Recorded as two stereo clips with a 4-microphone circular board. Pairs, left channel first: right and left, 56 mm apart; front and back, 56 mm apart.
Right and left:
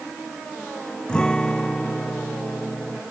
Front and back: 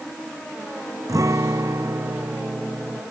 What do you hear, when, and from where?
1.1 s a guitar: 165° right